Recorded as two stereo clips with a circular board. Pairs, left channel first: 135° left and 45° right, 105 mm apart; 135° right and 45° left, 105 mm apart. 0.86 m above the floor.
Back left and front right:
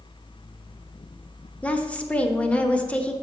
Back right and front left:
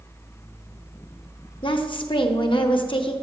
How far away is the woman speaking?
About 0.8 m.